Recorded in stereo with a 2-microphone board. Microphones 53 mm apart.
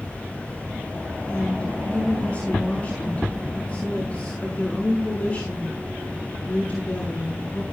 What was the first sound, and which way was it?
A woman speaking, 25° left (ahead or behind).